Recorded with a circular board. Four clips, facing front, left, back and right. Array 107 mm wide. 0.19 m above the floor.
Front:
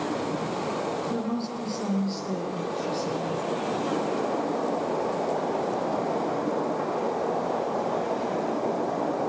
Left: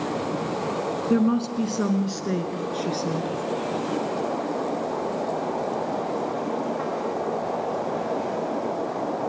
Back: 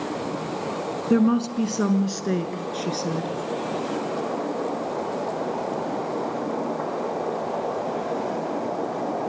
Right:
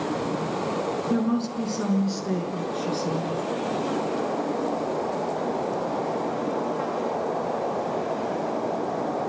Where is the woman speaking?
160° left, 2.5 m.